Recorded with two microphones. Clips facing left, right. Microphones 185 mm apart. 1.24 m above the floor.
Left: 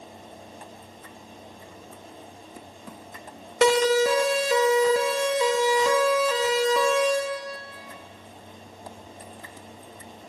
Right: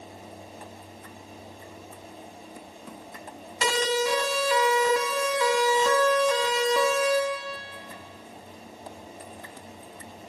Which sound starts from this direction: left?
A siren, at 3.6 s.